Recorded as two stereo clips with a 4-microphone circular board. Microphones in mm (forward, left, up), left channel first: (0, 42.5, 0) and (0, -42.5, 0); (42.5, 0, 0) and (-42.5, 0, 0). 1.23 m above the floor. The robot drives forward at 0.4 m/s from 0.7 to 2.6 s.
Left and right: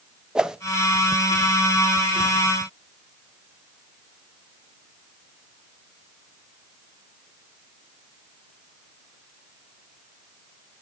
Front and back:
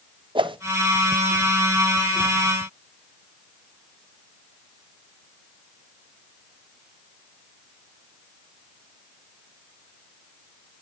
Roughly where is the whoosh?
Behind.